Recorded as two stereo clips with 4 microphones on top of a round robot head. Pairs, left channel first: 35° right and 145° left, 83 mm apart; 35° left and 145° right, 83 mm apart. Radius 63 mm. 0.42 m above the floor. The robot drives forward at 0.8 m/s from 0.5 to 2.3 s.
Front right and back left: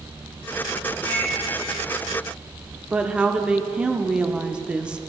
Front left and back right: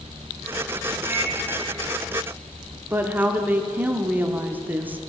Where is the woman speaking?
160° right, 0.7 m.